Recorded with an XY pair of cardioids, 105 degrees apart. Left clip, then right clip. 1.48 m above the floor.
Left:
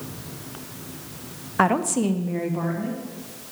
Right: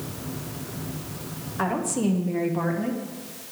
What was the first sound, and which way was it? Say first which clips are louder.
A woman speaking: left 5 dB; 65° left.